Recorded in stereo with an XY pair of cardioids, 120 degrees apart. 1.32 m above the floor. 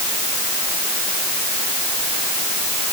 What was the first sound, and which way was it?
Only background noise.